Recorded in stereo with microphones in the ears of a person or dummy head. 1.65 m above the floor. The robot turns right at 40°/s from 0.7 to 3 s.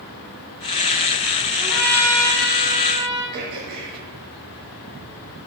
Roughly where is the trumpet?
Ahead.